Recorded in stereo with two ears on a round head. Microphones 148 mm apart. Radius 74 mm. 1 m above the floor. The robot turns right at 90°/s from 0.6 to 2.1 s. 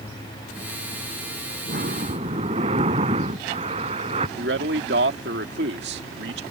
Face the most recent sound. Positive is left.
turn(degrees=-70)  # may be behind; listen again after turning